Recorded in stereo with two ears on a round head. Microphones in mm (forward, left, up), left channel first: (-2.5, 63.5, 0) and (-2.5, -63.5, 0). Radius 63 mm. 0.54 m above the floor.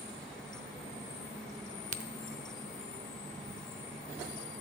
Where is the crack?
55° right (ahead or behind), 0.5 m.